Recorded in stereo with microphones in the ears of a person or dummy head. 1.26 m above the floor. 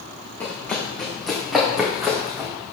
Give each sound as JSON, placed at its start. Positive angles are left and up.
{"t": 0.4, "sound": "running footsteps", "side_deg": 15, "distance_m": 4.5}